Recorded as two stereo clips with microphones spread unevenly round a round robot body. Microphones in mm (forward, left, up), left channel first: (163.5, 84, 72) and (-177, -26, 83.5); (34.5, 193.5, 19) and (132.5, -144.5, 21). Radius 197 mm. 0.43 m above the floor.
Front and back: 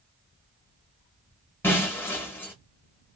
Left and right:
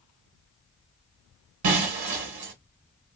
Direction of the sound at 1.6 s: 65° right.